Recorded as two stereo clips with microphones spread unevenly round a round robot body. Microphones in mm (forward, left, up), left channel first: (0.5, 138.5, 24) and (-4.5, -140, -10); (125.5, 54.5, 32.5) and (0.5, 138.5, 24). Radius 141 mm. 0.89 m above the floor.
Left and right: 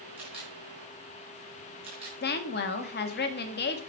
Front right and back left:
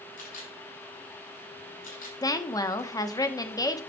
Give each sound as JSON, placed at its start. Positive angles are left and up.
{"t": 0.2, "sound": "a camera shutter", "azimuth_deg": -20, "distance_m": 5.0}
{"t": 2.2, "sound": "a woman speaking", "azimuth_deg": 35, "distance_m": 1.2}